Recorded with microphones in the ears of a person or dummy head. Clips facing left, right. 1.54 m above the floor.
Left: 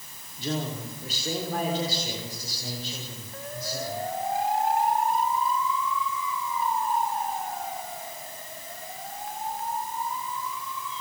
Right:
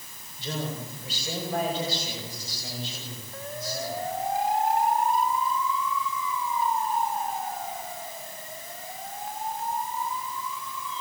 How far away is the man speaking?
About 5 m.